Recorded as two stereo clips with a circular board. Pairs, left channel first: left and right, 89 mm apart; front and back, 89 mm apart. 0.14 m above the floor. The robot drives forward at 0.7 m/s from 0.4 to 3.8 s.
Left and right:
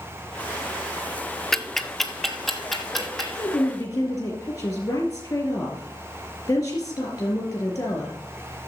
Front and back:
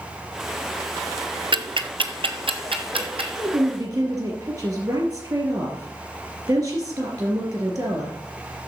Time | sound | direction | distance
1.5 | ticking | 175° left | 0.6 m
3.3 | a woman speaking | 140° left | 3.5 m